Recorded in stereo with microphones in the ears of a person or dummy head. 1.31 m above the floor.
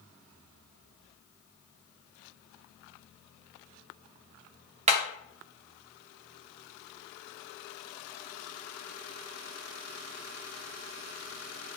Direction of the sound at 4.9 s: 35° right (ahead or behind).